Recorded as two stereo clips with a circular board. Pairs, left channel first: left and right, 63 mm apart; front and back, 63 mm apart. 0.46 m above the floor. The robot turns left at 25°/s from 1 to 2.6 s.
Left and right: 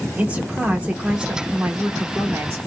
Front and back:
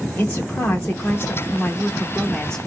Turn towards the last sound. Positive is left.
turn(degrees=-80)